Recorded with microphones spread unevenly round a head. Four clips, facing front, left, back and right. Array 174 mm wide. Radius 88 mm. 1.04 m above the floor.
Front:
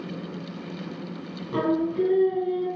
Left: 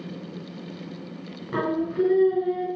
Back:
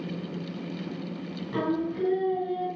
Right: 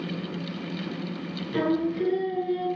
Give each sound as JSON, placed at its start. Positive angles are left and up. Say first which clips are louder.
{"t": 1.5, "sound": "singing", "louder": "even, front 5 dB", "azimuth_deg": 50, "distance_m": 6.0}